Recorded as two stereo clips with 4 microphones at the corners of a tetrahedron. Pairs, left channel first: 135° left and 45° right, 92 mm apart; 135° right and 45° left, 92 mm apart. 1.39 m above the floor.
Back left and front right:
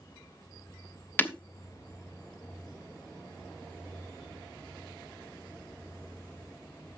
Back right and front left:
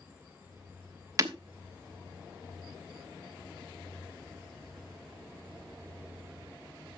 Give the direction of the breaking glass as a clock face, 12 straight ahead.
9 o'clock.